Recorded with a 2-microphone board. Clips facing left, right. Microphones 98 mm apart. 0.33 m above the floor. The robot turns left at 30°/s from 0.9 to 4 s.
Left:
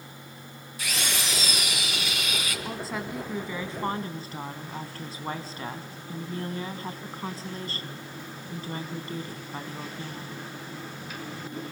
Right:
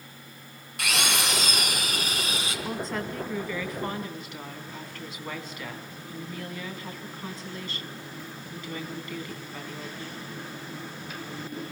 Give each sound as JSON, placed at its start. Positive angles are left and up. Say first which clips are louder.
{"t": 0.8, "sound": "a drill", "louder": "right 4 dB", "azimuth_deg": -100, "distance_m": 3.5}
{"t": 2.6, "sound": "a woman speaking", "louder": "right 4 dB", "azimuth_deg": -175, "distance_m": 2.5}